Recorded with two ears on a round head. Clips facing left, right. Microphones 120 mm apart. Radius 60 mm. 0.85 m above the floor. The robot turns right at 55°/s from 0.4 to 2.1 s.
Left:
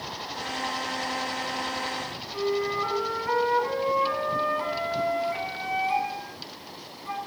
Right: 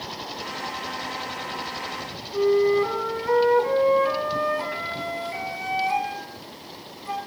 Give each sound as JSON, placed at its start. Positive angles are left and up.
{"t": 2.3, "sound": "a flute", "side_deg": -40, "distance_m": 2.0}